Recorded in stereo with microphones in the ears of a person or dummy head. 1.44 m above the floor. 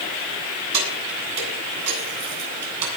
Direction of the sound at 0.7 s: 85° right.